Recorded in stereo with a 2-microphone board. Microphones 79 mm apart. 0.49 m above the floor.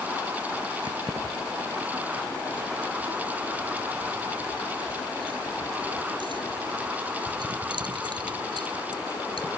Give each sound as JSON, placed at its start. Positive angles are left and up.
{"t": 0.8, "sound": "keys jangling", "side_deg": -65}